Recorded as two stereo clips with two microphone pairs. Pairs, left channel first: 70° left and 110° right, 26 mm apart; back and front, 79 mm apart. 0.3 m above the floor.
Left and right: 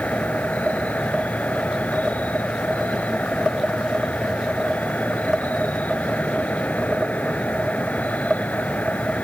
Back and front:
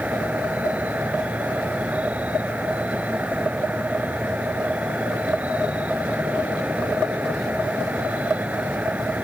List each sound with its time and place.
0.0 s an insect: 70° left